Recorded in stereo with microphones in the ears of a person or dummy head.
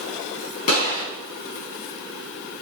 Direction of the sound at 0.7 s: 35° left (ahead or behind).